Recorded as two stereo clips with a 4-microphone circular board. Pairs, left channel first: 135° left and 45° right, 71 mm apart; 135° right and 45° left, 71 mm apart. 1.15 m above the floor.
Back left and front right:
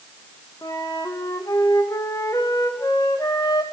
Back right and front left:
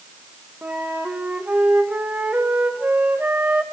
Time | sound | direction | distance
0.6 | a flute | 110° left | 1.8 m